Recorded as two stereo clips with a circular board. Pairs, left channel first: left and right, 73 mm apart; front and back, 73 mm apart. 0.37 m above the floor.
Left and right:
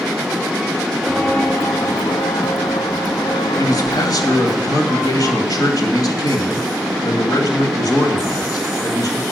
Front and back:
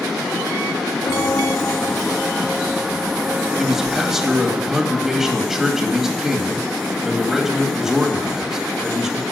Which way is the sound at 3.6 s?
95° left.